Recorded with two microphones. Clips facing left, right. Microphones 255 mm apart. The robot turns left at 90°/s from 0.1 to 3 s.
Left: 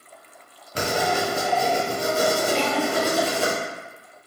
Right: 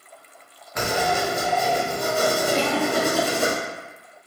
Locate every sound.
0.8 s writing: 145° left, 0.7 m; by 3.5 s 55° right, 0.7 m
2.5 s a giggle: 45° right (ahead or behind), 0.7 m; by 3.5 s 70° right (ahead or behind), 0.7 m